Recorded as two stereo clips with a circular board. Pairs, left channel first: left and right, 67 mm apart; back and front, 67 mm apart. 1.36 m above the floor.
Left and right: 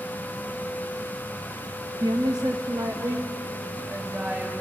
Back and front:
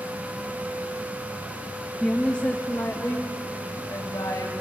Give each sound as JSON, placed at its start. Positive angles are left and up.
{"t": 2.0, "sound": "a woman speaking", "azimuth_deg": -90, "distance_m": 0.8}